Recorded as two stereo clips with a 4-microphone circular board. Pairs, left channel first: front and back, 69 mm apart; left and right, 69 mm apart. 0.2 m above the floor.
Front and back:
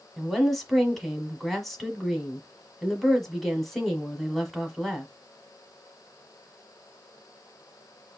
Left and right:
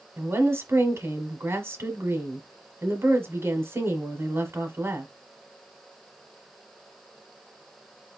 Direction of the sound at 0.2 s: 85° right.